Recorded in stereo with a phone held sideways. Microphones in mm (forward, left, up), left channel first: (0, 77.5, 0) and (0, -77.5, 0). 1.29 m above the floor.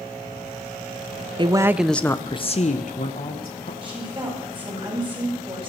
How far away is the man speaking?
About 0.6 m.